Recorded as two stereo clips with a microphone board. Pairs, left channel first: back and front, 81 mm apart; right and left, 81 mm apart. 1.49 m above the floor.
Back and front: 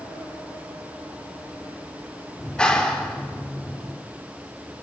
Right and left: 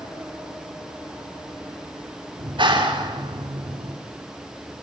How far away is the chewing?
No chewing in this recording.